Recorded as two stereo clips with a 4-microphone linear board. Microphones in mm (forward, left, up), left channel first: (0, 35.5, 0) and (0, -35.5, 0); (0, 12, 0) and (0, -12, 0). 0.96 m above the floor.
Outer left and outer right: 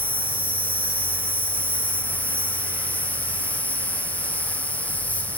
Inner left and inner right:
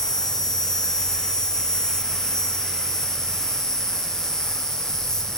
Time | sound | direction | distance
0.0 | an insect | 20° left (ahead or behind) | 0.8 m